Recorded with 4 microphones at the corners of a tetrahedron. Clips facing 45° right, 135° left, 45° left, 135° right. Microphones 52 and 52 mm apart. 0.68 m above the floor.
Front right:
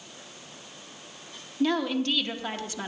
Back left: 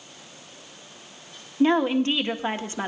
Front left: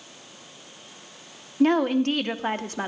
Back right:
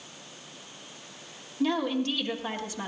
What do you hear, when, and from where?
1.6 s a woman speaking: 75° left, 0.9 m